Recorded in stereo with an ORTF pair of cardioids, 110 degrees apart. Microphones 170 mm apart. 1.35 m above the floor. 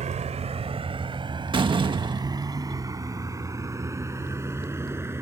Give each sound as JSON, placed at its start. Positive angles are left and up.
{"t": 0.0, "sound": "a vehicle", "azimuth_deg": -45}
{"t": 1.5, "sound": "a door slam", "azimuth_deg": -30}